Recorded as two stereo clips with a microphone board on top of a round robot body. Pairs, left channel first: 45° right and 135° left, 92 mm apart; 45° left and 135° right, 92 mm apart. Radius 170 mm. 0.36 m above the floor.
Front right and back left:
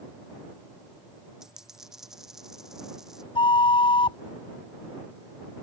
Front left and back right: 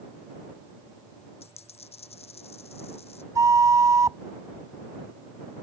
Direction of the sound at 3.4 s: 80° right.